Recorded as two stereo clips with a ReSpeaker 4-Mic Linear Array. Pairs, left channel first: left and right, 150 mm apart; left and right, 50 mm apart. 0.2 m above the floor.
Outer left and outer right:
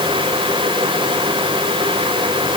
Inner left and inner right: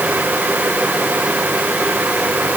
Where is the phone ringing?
I don't hear a phone ringing.